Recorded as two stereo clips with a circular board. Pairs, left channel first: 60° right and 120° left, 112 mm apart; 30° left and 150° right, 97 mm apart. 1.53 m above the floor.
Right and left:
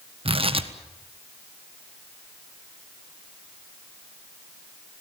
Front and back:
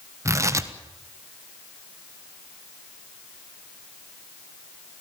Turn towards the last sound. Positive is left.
turn(degrees=155)